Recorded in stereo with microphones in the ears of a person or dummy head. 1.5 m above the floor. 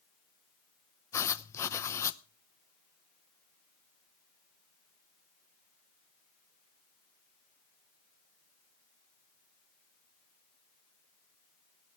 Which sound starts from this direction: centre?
Writing, at 1.1 s.